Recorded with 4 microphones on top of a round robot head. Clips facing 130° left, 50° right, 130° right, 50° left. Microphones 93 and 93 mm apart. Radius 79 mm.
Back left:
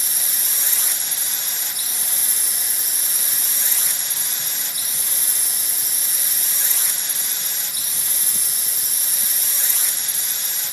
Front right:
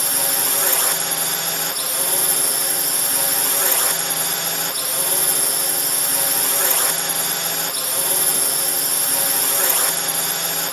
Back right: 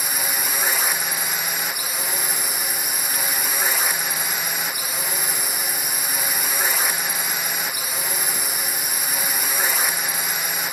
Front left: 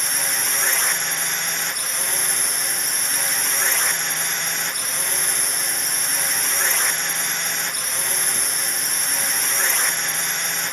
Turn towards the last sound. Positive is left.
turn(degrees=-45)